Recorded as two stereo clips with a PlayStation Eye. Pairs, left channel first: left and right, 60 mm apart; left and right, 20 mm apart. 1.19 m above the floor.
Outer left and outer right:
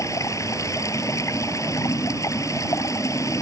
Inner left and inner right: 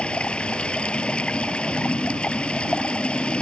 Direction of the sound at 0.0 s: 70° left (ahead or behind).